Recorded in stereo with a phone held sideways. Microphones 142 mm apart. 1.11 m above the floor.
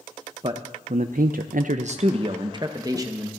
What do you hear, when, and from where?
0.4 s a man speaking: 40° right (ahead or behind), 0.7 m; by 3.3 s 20° right (ahead or behind), 1.2 m